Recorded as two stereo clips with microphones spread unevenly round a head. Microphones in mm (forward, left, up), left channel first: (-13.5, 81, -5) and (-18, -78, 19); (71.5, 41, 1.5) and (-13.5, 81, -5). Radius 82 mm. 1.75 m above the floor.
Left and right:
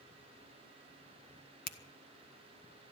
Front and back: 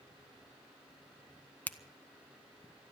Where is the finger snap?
45° left, 1.0 m.